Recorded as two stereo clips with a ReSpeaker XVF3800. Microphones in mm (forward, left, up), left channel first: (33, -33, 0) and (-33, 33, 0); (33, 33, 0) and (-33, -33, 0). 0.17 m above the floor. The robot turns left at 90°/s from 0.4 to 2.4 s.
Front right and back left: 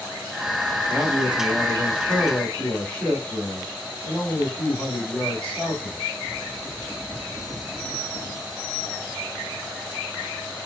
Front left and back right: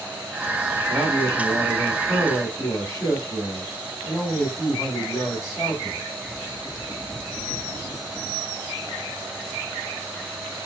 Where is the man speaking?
160° left, 1.7 m; by 6.0 s 20° left, 1.7 m.